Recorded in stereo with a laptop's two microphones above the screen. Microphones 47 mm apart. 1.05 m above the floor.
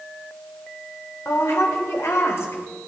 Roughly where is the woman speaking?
Left.